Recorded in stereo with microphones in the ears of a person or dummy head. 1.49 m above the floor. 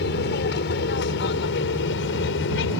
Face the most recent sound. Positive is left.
turn(degrees=60)  # may be behind; listen again after turning